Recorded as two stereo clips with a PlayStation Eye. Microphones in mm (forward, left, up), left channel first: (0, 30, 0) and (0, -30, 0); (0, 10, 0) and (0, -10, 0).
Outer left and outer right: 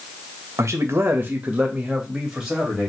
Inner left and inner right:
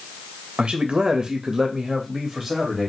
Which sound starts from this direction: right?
A man speaking, at 0.6 s.